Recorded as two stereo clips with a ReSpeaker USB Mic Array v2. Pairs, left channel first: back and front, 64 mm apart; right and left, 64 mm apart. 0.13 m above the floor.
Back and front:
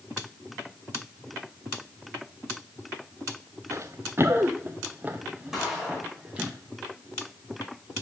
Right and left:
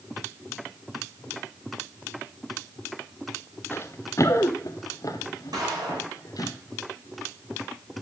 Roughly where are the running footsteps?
Ahead right.